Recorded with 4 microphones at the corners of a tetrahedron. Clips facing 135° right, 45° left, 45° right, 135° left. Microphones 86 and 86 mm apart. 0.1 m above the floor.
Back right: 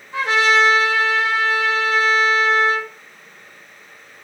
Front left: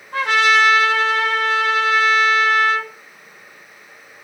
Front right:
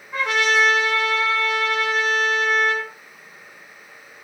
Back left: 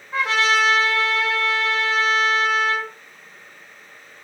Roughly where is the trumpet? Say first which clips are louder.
Front left 1 dB, even; left.